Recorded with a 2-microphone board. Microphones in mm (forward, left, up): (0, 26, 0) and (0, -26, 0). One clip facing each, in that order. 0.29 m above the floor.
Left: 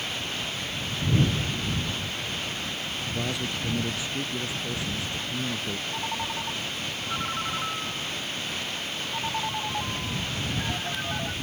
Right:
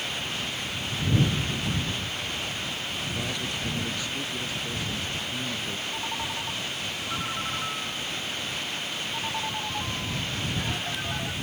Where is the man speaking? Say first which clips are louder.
Left 4 dB; 15° left (ahead or behind).